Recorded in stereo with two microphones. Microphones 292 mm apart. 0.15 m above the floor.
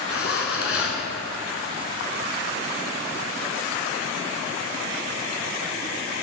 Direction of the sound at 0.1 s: 45° left (ahead or behind).